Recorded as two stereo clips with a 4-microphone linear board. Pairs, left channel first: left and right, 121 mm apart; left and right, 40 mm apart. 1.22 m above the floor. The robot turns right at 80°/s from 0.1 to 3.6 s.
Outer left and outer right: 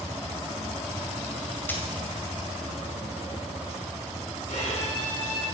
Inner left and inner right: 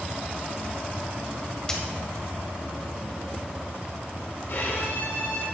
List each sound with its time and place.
1.7 s a dropped coin: 15° left (ahead or behind), 2 m; by 1.8 s 25° left (ahead or behind), 2 m
4.5 s a violin: 80° left, 6 m